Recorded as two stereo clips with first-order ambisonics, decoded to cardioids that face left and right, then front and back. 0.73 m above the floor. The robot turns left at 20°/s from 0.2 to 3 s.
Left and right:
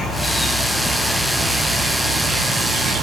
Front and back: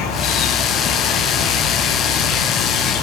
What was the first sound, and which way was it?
An insect, 15° left.